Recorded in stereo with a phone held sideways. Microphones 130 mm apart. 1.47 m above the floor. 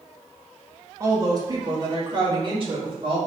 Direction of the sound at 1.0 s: 25° right (ahead or behind).